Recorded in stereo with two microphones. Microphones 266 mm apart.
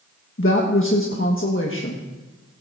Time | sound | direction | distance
0.4 | a woman speaking | 50° left (ahead or behind) | 1.6 m